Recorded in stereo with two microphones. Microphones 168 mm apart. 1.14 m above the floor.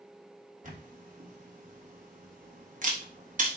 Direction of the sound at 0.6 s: 50° right (ahead or behind).